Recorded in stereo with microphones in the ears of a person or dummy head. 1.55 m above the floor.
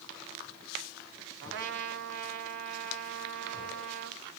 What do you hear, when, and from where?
1.4 s a trumpet: 65° right (ahead or behind), 0.8 m